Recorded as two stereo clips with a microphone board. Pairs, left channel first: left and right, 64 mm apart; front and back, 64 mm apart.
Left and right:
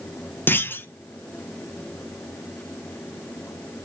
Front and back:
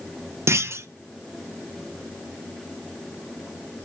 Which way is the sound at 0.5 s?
140° left.